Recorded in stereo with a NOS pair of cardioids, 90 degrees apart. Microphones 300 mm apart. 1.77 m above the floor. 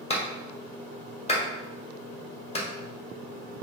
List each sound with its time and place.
0.1 s a clap: 20° left, 1.3 m